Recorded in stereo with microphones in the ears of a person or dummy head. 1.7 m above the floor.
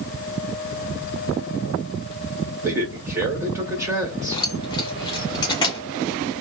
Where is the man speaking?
15° right (ahead or behind), 1.4 m.